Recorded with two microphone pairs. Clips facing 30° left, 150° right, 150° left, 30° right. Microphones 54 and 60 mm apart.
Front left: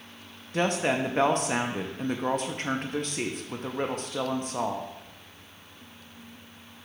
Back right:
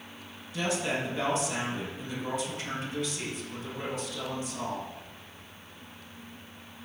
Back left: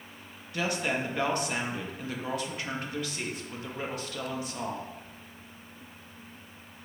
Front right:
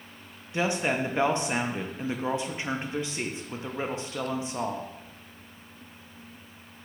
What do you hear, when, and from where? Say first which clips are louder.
0.5 s a woman speaking: front left 5 dB, front right 3 dB; 35° left, 0.6 m